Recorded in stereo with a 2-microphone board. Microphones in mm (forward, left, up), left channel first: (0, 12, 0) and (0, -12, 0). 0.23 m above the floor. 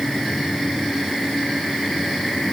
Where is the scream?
I don't hear a scream.